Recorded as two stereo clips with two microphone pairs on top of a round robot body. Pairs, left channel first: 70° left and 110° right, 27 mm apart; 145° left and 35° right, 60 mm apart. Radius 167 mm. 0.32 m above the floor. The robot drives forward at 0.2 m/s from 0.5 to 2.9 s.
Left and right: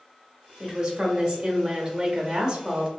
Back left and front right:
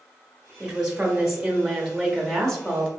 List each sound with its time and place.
0.6 s a woman speaking: 65° right, 1.0 m; by 2.9 s 125° right, 1.1 m